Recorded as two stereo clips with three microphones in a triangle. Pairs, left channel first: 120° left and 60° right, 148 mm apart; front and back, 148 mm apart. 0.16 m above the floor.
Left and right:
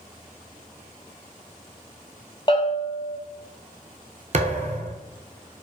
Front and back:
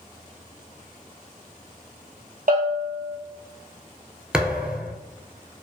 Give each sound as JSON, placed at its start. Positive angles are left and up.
{"t": 2.5, "sound": "a bell", "azimuth_deg": 175, "distance_m": 1.0}
{"t": 4.3, "sound": "a thud", "azimuth_deg": -95, "distance_m": 0.6}